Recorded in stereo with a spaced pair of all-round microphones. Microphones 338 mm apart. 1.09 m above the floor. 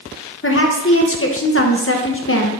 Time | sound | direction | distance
0.4 | a woman speaking | 40° left (ahead or behind) | 1.0 m